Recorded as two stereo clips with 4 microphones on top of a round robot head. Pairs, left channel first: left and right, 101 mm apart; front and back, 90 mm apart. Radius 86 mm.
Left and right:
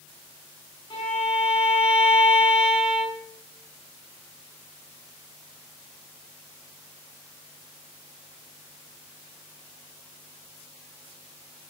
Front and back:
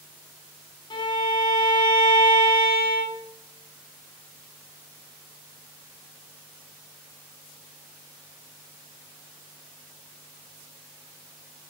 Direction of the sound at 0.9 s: 40° left.